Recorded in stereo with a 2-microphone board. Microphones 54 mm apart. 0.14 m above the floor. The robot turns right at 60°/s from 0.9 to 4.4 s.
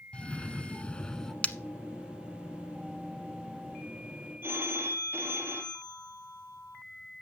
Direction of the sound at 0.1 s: 20° left (ahead or behind).